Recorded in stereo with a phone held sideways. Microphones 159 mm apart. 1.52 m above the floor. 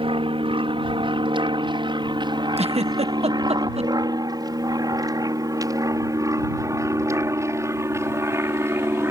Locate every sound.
0.0 s an aircraft: 35° right (ahead or behind); by 9.1 s 15° right (ahead or behind)
2.6 s a giggle: 45° right (ahead or behind)